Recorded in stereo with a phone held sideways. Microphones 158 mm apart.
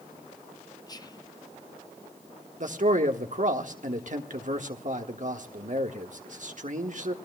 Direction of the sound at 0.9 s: 25° left (ahead or behind).